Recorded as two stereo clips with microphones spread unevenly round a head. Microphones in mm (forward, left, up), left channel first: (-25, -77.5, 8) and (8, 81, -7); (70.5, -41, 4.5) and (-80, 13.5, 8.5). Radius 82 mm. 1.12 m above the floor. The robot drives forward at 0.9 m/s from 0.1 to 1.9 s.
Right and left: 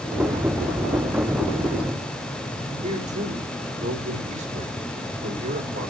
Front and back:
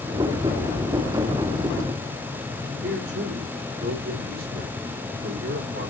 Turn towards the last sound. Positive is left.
turn(degrees=125)